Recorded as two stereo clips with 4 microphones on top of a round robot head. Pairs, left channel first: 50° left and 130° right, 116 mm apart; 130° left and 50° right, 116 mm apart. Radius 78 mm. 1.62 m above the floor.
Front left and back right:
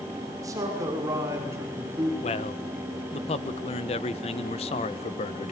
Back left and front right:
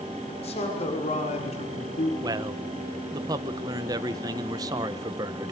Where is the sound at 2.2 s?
10° left, 1.4 m.